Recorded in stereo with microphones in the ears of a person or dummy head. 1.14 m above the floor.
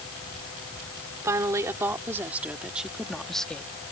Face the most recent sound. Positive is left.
turn(degrees=10)  # may be behind; listen again after turning